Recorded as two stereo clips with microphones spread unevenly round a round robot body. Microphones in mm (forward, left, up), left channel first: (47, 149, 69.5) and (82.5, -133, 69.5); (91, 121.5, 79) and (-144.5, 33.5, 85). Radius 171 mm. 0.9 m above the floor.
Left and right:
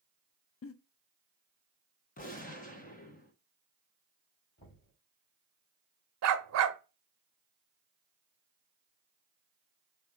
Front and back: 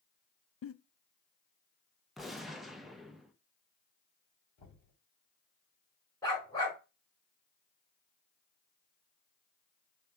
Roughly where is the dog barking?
Ahead right.